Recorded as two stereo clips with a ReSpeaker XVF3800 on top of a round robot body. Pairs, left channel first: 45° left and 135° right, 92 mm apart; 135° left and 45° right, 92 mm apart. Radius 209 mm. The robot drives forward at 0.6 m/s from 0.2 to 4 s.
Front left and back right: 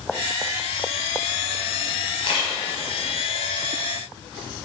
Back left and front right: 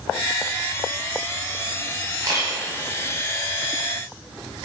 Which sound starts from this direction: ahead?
A camera shutter, at 2.2 s.